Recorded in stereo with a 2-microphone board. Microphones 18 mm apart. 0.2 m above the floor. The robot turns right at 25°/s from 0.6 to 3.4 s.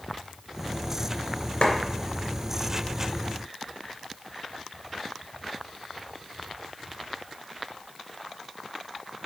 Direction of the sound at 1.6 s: 65° left (ahead or behind).